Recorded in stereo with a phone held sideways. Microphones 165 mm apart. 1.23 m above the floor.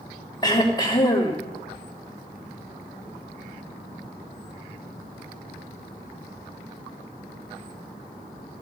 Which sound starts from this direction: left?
Throat clearing, at 0.4 s.